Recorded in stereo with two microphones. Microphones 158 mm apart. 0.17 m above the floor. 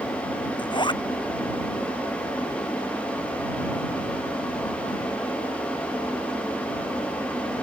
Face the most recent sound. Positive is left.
turn(degrees=30)  # may be behind; listen again after turning